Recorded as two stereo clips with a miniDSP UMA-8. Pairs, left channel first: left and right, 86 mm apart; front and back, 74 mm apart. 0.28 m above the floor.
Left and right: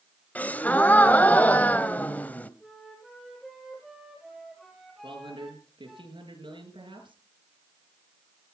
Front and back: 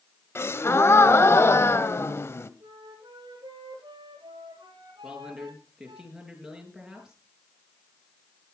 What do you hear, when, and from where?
0.3 s a gasp: 30° left, 0.9 m
2.6 s a flute: straight behind, 4 m
5.0 s a man speaking: 95° right, 5 m